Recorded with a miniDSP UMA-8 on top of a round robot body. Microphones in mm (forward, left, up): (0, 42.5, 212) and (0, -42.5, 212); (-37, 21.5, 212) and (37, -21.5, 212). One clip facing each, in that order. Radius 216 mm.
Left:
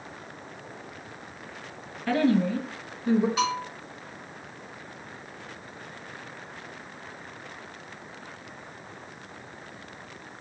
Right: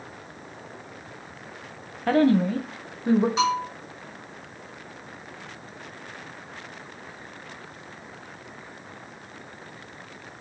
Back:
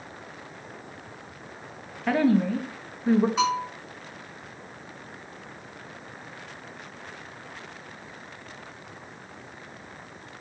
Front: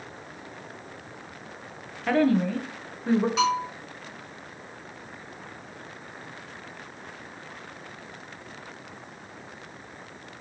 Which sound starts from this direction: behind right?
A woman speaking, at 2.1 s.